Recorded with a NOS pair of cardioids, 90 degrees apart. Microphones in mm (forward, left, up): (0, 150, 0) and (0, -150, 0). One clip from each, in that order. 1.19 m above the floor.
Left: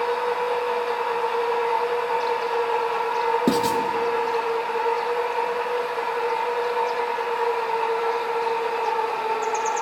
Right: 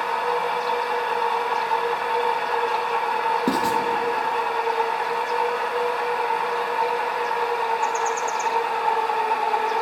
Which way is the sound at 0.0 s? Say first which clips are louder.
Even; 30° right.